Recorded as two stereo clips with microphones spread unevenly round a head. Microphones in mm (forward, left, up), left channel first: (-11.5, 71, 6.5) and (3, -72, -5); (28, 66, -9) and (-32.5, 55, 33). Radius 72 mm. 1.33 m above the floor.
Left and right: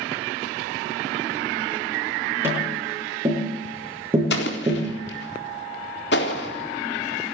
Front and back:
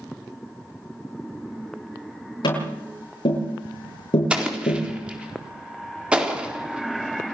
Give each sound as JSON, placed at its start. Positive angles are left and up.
{"t": 2.4, "sound": "tapping", "azimuth_deg": -10, "distance_m": 9.5}
{"t": 4.3, "sound": "an explosion", "azimuth_deg": 115, "distance_m": 4.0}